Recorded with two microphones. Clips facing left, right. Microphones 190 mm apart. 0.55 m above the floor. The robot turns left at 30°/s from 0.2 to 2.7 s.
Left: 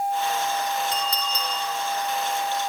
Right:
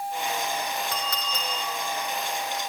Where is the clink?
65° right (ahead or behind), 2.5 m; by 1.5 s 75° right (ahead or behind), 2.5 m.